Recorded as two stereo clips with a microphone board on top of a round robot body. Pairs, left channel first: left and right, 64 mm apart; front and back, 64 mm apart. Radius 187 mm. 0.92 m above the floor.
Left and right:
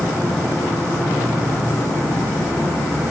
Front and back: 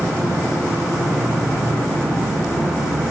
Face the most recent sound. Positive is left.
turn(degrees=80)